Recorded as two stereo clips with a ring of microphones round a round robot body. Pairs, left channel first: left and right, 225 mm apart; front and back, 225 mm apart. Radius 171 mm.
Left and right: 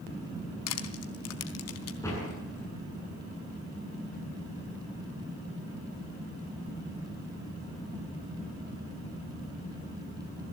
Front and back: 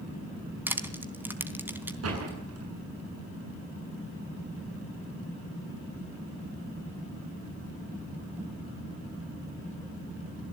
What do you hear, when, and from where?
0.7 s crushing: 100° left, 3.5 m
2.0 s a door slam: 170° left, 8.5 m